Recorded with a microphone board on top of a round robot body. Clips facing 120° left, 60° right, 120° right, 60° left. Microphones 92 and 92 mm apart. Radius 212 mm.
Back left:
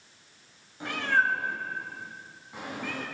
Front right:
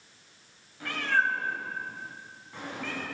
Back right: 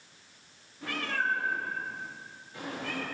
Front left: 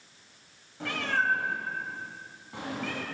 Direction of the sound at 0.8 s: 50° left.